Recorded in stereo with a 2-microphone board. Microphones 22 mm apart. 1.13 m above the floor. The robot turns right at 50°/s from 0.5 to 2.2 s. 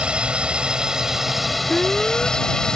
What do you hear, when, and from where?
0.0 s a drone: 55° right; by 2.8 s 30° left
1.7 s an alarm: 10° left (ahead or behind); by 2.4 s 35° left (ahead or behind)